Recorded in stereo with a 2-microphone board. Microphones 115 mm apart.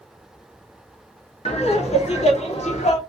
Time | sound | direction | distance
1.4 | laughter | 65° left (ahead or behind) | 1.7 m